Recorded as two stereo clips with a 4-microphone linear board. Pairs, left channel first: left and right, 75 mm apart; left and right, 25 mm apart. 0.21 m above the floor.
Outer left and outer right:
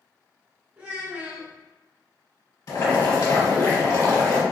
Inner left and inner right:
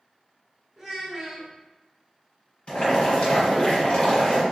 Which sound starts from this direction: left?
Boiling, at 2.7 s.